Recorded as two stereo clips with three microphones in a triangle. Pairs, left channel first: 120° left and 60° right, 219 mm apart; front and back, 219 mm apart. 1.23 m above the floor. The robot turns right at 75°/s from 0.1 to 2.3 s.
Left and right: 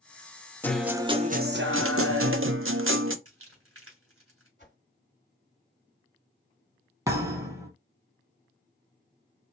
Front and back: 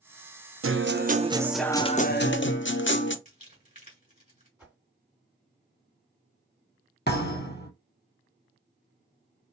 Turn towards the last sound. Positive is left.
turn(degrees=10)